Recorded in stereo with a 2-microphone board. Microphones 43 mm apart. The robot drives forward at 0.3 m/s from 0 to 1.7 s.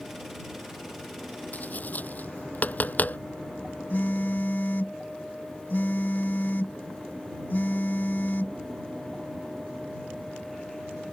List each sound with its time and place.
1.5 s tapping: 40° left (ahead or behind)
3.9 s a phone buzzing: 50° left (ahead or behind)